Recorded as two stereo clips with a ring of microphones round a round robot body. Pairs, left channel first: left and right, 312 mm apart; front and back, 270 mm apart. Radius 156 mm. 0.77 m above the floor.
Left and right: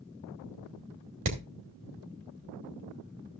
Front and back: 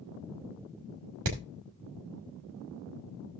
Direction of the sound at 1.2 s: 140° right.